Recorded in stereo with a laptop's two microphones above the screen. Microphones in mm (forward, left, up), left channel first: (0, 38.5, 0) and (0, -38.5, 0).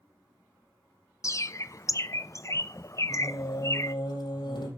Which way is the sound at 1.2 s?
40° left (ahead or behind).